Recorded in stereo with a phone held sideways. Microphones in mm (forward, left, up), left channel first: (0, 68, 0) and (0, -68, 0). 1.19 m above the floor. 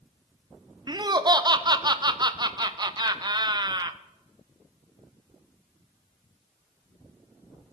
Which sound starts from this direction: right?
Laughter, at 0.9 s.